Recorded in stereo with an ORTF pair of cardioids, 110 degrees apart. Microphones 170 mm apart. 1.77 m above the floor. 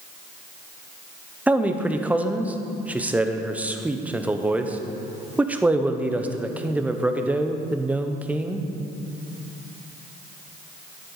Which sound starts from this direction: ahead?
A man speaking, at 1.5 s.